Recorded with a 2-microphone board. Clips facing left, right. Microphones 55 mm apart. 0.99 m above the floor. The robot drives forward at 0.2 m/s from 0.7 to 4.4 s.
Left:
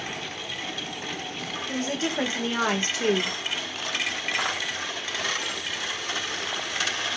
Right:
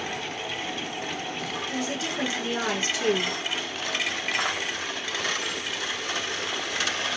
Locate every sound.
1.7 s a woman speaking: 40° left (ahead or behind), 1.2 m; by 3.4 s 35° left (ahead or behind), 1.4 m